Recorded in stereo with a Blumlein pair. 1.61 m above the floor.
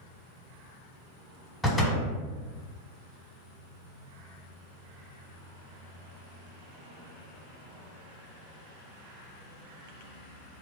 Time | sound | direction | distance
1.6 | a door slam | 5° left | 1.1 m